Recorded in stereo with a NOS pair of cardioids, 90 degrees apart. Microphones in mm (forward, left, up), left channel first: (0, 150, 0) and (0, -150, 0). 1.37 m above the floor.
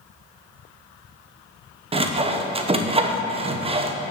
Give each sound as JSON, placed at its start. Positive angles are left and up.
{"t": 1.9, "sound": "sawing", "azimuth_deg": -20, "distance_m": 0.8}